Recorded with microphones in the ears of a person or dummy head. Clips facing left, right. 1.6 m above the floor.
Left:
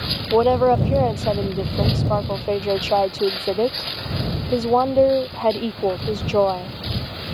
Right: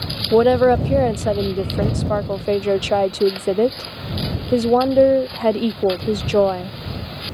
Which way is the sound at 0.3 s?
20° right (ahead or behind).